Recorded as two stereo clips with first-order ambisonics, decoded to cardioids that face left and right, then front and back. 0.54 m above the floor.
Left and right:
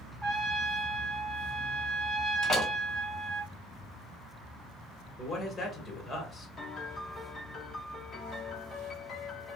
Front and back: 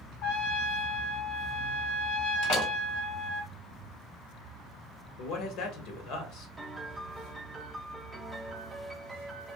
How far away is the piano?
About 0.9 m.